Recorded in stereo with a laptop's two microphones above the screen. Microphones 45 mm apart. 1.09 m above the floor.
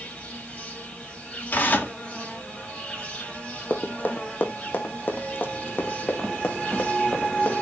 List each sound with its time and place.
0.0 s an insect: 25° left (ahead or behind), 6 m
1.5 s tearing paper: 45° left (ahead or behind), 3 m
3.7 s running footsteps: 40° left (ahead or behind), 3 m; by 7.6 s 55° left (ahead or behind), 5 m